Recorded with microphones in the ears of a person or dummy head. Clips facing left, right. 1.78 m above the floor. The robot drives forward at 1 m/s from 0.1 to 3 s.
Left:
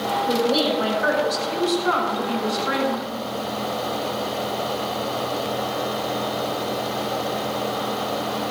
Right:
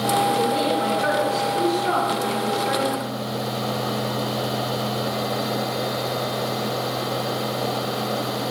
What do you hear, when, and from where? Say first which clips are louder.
0.3 s a woman speaking: left 1 dB; 50° left (ahead or behind), 6 m; by 3.1 s 80° left, 5 m